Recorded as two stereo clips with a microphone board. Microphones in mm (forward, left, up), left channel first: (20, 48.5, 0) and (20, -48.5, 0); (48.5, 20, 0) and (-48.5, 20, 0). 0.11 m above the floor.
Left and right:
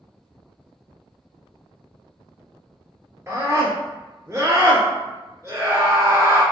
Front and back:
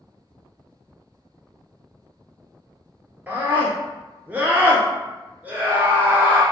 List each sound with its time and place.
3.3 s a scream: 120° right, 1.3 m